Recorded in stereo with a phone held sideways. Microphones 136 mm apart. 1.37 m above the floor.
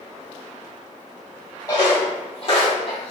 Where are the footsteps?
30° left (ahead or behind), 1.6 m; by 3.1 s 45° left (ahead or behind), 2 m.